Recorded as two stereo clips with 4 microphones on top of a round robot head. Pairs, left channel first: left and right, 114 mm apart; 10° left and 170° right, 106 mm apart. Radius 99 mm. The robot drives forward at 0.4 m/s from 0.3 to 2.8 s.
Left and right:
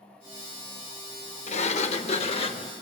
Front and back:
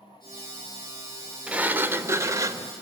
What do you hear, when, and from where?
1.5 s a sliding door: 110° left, 0.9 m; by 2.7 s 135° left, 1.2 m